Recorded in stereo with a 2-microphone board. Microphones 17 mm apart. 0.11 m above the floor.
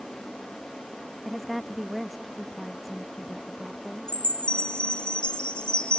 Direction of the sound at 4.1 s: 85° left.